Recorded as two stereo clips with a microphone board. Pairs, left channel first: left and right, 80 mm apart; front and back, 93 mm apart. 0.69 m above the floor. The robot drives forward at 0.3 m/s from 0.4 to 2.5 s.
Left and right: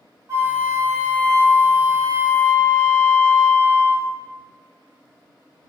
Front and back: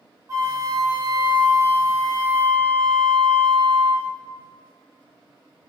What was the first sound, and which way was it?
A flute, 135° right.